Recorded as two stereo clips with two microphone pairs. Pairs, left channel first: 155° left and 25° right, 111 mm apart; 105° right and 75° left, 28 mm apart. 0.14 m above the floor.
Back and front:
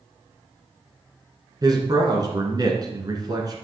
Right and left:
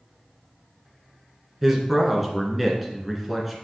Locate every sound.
1.6 s a man speaking: 10° right, 1.7 m